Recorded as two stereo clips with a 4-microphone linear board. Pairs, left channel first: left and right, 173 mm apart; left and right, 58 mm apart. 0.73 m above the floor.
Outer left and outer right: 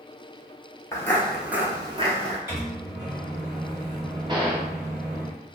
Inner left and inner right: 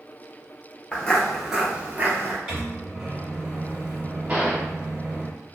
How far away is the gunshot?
About 0.6 m.